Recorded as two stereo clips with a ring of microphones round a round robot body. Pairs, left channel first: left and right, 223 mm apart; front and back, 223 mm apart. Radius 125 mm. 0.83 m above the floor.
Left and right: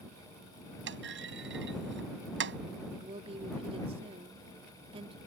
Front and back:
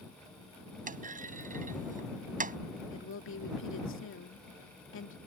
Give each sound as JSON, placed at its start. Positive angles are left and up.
{"t": 0.9, "sound": "a clunk", "azimuth_deg": -125}
{"t": 2.9, "sound": "a woman speaking", "azimuth_deg": -25}